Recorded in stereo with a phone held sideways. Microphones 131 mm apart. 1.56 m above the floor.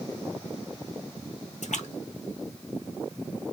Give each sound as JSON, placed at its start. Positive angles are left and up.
{"t": 1.6, "sound": "a splash", "side_deg": 80, "distance_m": 1.2}